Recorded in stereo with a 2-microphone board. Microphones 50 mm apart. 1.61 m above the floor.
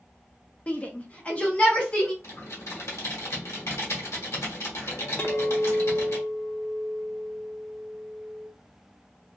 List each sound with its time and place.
0.7 s a shout: 25° left (ahead or behind), 0.5 m; by 2.1 s 20° left (ahead or behind), 0.9 m
2.2 s typing on a keyboard: 65° left (ahead or behind), 1.2 m
5.2 s a clink: 30° left (ahead or behind), 0.6 m